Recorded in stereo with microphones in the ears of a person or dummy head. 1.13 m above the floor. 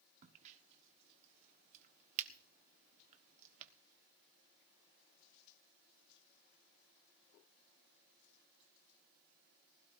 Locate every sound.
0.2 s a crack: 35° right (ahead or behind), 1.2 m